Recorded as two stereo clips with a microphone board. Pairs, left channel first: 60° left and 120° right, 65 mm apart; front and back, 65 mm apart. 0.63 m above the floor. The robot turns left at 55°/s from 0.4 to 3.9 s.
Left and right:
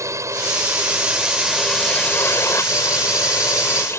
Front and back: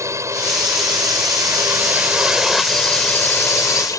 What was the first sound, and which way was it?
A drone, 150° right.